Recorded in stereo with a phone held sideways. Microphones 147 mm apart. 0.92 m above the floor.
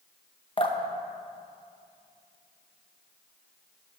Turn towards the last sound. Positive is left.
turn(degrees=35)  # may be behind; listen again after turning